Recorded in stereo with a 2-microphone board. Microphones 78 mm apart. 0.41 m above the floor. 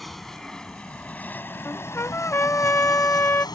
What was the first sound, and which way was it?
An aircraft, 5° left (ahead or behind).